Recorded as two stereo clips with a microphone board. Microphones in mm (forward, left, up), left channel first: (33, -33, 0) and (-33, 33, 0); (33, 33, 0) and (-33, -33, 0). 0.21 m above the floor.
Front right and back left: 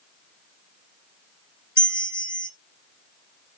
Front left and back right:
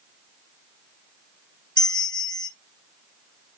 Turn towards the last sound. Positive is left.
turn(degrees=80)